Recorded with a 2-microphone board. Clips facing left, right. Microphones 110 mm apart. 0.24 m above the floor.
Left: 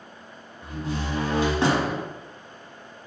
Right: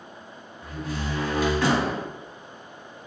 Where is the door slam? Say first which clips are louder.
Left 1 dB; 25° left (ahead or behind), 1.1 m.